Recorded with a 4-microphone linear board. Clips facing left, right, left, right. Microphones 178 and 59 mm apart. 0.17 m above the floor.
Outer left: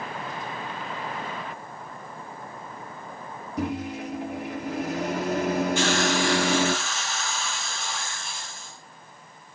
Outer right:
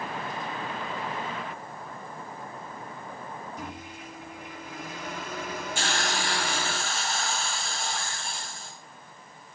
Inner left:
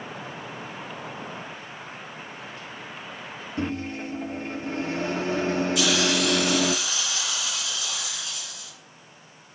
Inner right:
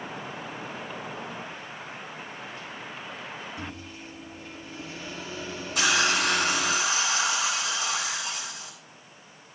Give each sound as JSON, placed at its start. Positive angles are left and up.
{"t": 3.6, "sound": "a microwave", "side_deg": 60, "distance_m": 3.0}
{"t": 5.8, "sound": "a hiss", "side_deg": -45, "distance_m": 4.5}